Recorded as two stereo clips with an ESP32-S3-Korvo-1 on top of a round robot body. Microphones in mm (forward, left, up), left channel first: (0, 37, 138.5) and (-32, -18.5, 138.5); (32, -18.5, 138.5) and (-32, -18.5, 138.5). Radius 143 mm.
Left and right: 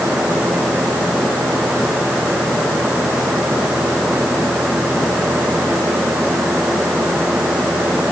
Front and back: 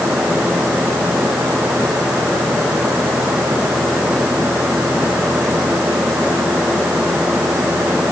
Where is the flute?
No flute in this recording.